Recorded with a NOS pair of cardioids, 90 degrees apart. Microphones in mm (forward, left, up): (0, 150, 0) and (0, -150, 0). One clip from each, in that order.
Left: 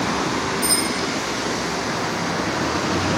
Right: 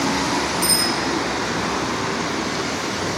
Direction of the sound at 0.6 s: 30° right.